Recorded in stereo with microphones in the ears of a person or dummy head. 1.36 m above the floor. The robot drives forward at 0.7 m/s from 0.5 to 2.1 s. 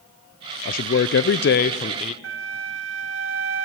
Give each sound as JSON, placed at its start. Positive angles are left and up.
{"t": 0.7, "sound": "a man speaking", "side_deg": 45, "distance_m": 0.6}
{"t": 2.2, "sound": "a flute", "side_deg": -65, "distance_m": 0.9}